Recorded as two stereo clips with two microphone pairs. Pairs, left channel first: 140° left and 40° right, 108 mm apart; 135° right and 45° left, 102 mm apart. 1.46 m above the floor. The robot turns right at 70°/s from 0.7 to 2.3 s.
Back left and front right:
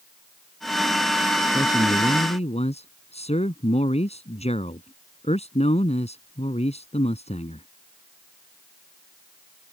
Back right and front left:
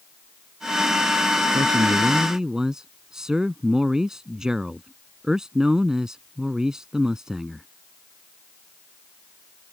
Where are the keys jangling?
I don't hear keys jangling.